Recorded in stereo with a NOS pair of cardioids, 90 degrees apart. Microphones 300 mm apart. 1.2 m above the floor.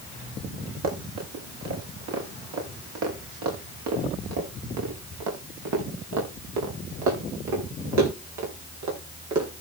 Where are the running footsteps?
65° right, 9.5 m; by 9.5 s 80° right, 13 m.